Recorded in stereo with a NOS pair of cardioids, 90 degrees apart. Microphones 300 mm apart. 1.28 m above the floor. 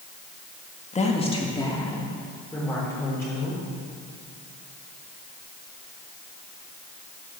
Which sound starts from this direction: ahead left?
A woman speaking, at 0.9 s.